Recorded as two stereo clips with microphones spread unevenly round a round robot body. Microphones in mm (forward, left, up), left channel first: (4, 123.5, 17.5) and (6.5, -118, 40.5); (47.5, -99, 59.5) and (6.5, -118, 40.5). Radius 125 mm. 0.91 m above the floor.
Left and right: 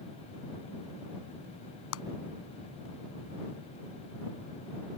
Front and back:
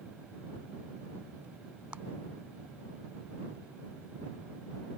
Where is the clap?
125° left.